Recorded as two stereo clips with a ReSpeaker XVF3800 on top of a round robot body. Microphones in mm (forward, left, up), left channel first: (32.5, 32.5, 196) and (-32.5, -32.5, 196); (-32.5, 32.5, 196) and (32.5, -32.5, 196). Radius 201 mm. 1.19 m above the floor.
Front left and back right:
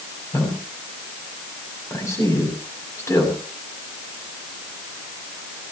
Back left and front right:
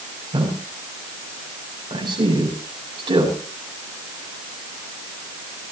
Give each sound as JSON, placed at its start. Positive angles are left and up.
{"t": 0.3, "sound": "a man speaking", "azimuth_deg": -15, "distance_m": 8.5}